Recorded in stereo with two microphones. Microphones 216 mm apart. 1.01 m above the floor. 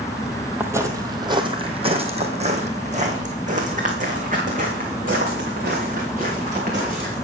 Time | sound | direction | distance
0.6 | footsteps | 10° right (ahead or behind) | 1.2 m